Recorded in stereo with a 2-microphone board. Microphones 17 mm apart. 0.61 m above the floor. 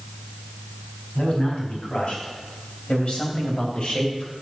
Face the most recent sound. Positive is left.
turn(degrees=60)  # may be behind; listen again after turning